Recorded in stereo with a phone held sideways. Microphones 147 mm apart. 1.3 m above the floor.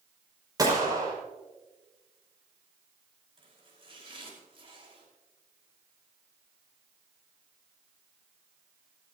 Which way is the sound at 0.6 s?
25° right (ahead or behind).